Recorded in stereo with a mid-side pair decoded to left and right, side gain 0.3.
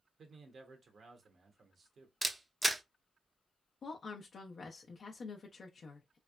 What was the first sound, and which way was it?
A man speaking, 65° right.